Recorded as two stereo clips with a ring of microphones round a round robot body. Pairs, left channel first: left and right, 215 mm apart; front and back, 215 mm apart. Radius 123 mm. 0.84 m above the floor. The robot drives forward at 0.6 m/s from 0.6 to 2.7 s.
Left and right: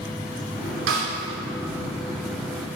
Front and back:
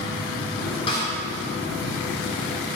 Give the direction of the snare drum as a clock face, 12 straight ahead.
2 o'clock.